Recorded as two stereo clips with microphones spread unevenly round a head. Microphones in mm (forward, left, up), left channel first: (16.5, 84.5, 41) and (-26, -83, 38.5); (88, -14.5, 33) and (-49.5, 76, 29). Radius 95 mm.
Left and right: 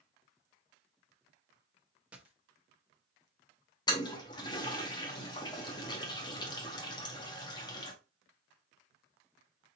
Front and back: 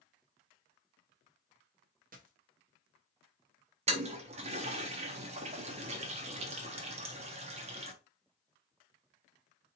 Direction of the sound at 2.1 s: 175° left.